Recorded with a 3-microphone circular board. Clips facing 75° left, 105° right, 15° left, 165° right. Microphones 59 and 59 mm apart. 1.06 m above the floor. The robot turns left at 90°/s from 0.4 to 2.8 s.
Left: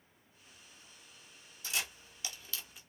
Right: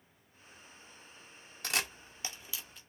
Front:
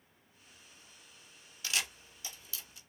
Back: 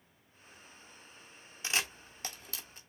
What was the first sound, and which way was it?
A camera shutter, 100° right.